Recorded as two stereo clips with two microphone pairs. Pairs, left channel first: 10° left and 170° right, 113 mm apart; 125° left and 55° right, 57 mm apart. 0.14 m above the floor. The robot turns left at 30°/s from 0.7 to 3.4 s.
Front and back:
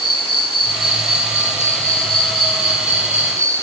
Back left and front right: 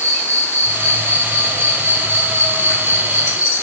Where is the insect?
25° right, 1.0 m; by 3.6 s 110° right, 1.0 m.